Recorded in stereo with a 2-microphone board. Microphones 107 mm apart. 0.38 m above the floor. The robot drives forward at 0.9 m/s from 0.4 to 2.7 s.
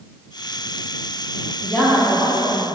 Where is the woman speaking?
15° left (ahead or behind), 1.9 m; by 2.7 s 20° left (ahead or behind), 1.4 m.